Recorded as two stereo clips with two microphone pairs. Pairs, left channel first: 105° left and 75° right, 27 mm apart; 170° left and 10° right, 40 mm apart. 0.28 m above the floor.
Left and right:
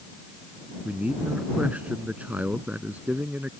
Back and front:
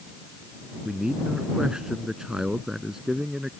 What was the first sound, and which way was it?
A man speaking, 85° right.